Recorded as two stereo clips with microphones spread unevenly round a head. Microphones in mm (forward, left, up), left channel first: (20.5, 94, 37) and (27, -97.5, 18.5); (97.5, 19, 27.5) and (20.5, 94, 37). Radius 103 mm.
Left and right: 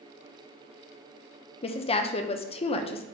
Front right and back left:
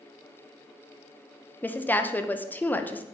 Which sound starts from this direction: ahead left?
A woman speaking, at 1.6 s.